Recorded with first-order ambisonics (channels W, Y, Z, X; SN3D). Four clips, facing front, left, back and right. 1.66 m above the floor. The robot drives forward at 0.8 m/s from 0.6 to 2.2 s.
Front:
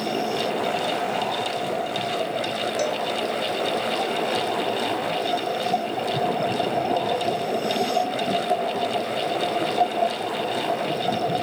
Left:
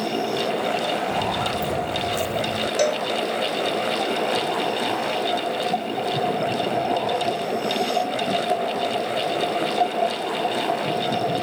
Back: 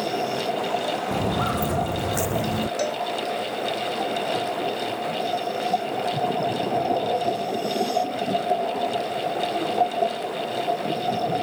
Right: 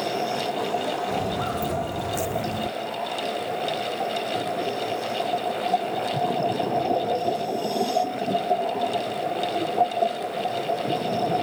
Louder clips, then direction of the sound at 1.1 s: Left 3 dB, back 1 dB; straight behind.